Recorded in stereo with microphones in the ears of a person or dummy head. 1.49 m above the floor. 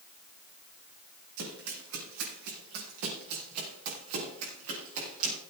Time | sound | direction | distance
1.4 | running footsteps | 75° right (ahead or behind) | 5.5 m